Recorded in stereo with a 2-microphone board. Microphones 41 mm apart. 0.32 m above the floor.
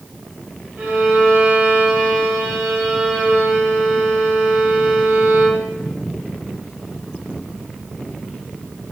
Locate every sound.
0.8 s a violin: 30° right (ahead or behind), 1.3 m